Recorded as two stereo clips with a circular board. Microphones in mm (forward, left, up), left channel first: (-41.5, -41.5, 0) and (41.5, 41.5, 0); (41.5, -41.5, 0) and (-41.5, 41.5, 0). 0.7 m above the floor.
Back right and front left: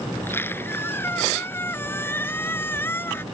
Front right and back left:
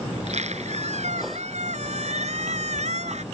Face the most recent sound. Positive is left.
turn(degrees=155)